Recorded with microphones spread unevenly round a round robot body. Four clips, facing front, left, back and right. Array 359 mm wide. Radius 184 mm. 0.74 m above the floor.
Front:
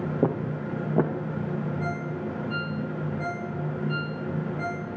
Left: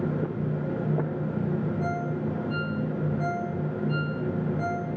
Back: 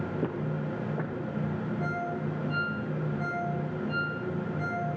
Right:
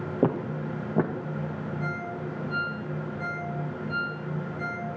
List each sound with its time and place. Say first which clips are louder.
0.2 s footsteps: right 3 dB, front 9 dB; 60° right, 1.8 m; by 1.3 s 35° right, 2.5 m
1.8 s a ringtone: left 4 dB, front 1 dB; 70° left, 8 m